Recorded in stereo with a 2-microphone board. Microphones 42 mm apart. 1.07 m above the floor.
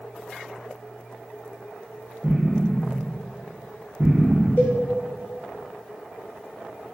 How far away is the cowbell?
About 1.2 m.